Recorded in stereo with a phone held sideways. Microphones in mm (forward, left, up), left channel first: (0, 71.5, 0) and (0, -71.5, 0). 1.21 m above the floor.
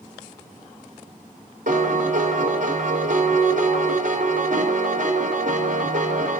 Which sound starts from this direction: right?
A piano, at 1.7 s.